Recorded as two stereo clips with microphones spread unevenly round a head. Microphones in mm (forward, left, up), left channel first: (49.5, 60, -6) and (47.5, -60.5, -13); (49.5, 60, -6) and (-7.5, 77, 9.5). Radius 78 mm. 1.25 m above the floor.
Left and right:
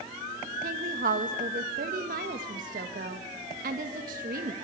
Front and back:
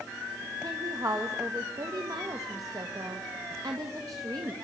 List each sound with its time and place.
0.6 s a woman speaking: 130° right, 1.8 m